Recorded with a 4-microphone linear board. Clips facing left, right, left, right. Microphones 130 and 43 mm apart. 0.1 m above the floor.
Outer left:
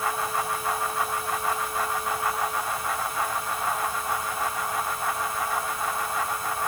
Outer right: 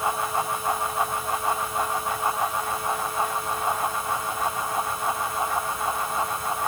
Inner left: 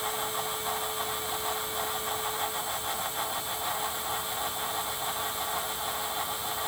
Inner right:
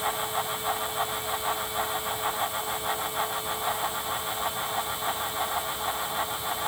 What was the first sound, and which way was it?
Only background noise.